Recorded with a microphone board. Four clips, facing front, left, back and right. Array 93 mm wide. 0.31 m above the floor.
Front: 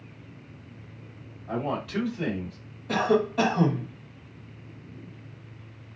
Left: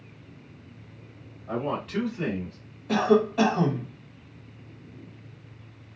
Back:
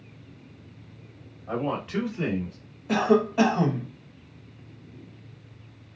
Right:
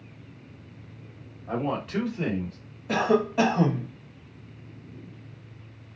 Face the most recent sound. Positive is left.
turn(degrees=-135)